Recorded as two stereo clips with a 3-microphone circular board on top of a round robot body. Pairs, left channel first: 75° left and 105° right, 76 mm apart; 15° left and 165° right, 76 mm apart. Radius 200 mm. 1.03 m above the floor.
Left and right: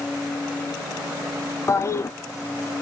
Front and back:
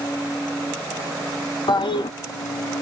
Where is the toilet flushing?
20° left, 0.8 m.